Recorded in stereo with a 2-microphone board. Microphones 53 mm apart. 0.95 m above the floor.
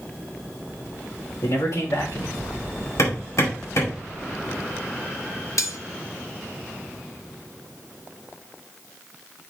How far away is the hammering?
About 4 m.